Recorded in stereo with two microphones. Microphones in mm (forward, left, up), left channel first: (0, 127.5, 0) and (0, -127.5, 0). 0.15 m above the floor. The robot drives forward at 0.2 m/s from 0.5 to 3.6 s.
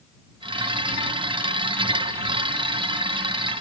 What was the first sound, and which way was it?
Only background noise.